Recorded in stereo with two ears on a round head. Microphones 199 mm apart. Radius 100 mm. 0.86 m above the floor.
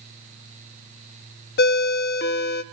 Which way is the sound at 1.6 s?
50° left (ahead or behind).